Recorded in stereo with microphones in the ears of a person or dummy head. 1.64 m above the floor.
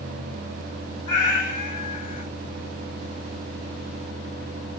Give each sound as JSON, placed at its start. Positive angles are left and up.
{"t": 1.1, "sound": "a cat meowing", "side_deg": 35, "distance_m": 2.0}